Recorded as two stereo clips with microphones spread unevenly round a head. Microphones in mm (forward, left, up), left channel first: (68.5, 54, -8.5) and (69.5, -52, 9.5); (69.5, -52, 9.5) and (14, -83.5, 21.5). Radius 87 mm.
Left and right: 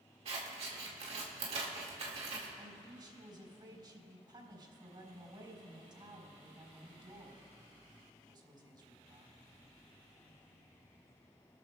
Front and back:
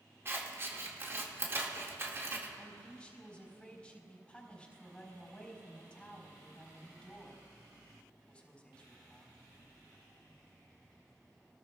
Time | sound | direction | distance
0.2 | scissors | 110° right | 1.9 m
2.6 | a man speaking | 40° right | 4.5 m